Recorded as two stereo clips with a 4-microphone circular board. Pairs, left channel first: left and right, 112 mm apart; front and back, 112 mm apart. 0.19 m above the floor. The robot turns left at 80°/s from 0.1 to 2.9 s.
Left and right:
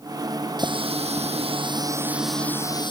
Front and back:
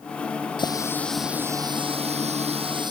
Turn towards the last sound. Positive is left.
turn(degrees=130)